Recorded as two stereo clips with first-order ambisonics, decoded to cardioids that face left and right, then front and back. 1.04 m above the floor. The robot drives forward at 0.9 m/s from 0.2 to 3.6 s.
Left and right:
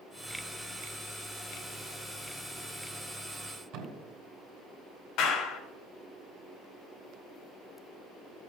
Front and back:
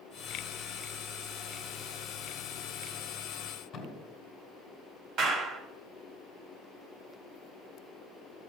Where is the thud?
75° right, 3 m.